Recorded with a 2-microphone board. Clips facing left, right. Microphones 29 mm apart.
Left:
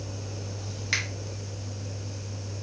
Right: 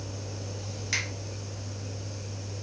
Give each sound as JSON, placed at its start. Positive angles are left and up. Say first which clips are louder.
{"t": 0.9, "sound": "a finger snap", "louder": "left 2 dB", "side_deg": 25, "distance_m": 1.2}